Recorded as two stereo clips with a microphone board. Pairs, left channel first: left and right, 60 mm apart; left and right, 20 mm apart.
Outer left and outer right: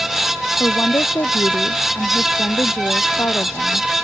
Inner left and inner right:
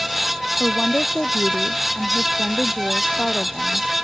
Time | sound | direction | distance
0.6 | a woman speaking | 50° left (ahead or behind) | ?